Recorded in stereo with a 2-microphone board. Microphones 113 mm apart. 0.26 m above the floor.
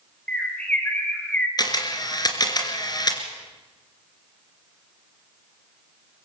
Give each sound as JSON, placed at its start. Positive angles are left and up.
{"t": 0.3, "sound": "a bird", "side_deg": 10, "distance_m": 4.5}
{"t": 1.6, "sound": "a camera shutter", "side_deg": 40, "distance_m": 2.5}